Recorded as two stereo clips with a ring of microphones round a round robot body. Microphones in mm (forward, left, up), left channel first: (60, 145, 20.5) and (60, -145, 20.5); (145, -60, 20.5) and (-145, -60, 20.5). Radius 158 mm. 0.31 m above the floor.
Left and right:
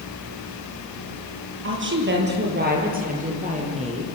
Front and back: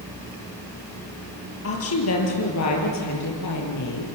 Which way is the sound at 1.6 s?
40° right.